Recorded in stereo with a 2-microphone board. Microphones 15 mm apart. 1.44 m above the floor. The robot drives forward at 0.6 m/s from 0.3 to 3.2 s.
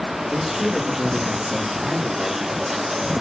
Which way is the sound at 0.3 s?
85° right.